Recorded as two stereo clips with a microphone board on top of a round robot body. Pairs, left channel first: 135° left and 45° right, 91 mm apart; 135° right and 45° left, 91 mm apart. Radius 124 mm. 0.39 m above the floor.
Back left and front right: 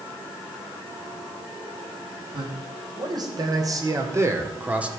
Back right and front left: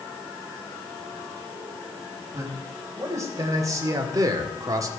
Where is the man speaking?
10° right, 4 m; by 4.9 s 30° left, 1.7 m.